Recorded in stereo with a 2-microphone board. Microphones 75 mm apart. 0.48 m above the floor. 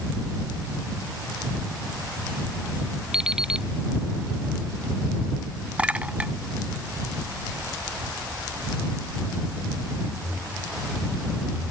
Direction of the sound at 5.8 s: 15° right (ahead or behind).